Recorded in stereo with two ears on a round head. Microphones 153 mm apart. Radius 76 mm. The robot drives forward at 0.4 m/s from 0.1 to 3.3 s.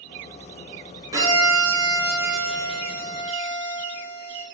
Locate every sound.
1.1 s a violin: 20° right (ahead or behind), 3 m; by 4.4 s 15° right (ahead or behind), 4 m